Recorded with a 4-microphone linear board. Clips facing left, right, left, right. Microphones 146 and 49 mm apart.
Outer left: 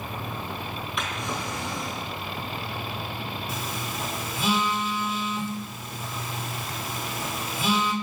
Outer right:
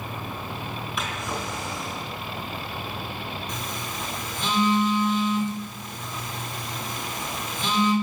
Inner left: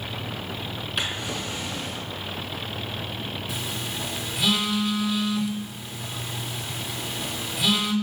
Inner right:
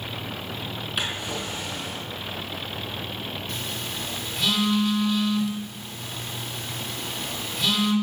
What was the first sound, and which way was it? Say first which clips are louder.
A drawer: even, even; centre (ahead or behind).